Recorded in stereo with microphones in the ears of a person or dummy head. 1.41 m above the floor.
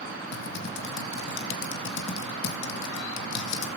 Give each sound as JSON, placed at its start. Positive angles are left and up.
{"t": 0.3, "sound": "typing on a keyboard", "side_deg": 70, "distance_m": 2.5}